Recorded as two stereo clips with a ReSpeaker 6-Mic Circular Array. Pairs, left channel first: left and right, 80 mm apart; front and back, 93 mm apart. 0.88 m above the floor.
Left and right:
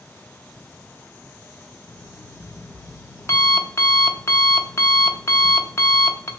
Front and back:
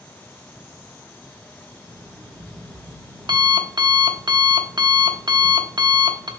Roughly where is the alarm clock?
Behind left.